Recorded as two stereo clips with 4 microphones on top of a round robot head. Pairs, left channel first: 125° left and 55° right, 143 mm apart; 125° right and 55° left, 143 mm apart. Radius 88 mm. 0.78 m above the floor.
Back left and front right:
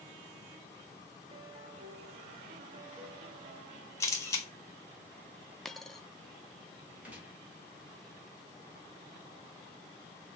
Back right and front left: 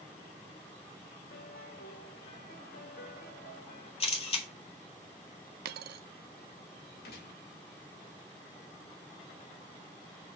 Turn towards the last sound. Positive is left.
turn(degrees=-135)